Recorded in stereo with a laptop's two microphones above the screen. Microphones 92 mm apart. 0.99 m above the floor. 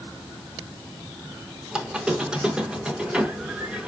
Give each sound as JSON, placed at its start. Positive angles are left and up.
{"t": 1.7, "sound": "a squeak", "side_deg": -10, "distance_m": 0.8}